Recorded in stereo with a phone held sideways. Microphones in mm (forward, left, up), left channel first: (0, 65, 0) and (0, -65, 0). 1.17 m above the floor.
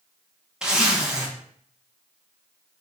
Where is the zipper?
5° right (ahead or behind), 0.7 m.